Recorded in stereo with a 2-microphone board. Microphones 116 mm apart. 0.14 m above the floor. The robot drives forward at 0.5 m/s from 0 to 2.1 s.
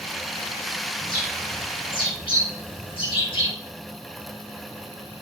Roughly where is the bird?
Left.